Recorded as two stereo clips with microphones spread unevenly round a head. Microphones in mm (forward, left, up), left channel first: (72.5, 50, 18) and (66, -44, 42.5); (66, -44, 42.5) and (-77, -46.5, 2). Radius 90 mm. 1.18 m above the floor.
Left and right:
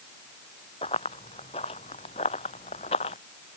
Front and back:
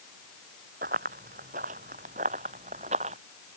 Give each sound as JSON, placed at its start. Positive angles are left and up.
{"t": 0.8, "sound": "running footsteps", "azimuth_deg": 135}